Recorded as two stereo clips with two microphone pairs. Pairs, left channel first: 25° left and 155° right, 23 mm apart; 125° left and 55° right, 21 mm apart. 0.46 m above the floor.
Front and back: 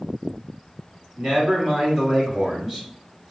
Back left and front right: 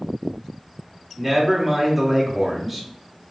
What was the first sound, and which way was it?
A man speaking, 120° right.